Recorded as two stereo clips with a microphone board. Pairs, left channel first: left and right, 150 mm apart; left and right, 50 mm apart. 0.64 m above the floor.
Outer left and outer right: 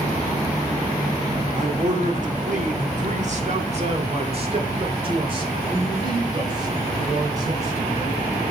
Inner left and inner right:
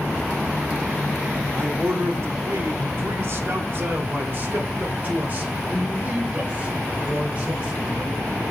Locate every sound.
1.5 s a man speaking: 55° right (ahead or behind), 1.4 m; by 8.2 s 25° right (ahead or behind), 3.5 m